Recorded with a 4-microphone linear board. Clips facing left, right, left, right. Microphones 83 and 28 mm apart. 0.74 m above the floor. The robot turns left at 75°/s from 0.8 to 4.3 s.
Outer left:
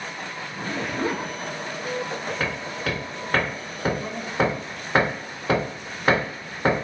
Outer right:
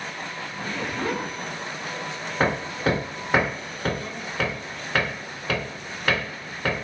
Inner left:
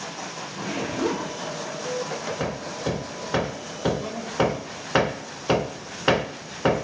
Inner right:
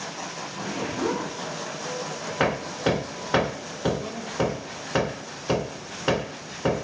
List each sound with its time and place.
0.5 s a zipper: 35° left, 5.5 m; by 1.3 s straight ahead, 5.5 m
2.4 s hammering: 40° right (ahead or behind), 0.5 m; by 6.8 s 30° left (ahead or behind), 0.5 m